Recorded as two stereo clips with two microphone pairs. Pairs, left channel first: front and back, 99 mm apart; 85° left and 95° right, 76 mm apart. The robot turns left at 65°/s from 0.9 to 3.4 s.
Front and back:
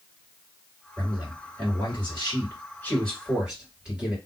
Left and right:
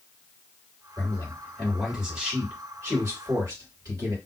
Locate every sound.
1.0 s a man speaking: 55° left, 2.5 m; by 4.2 s 105° right, 2.5 m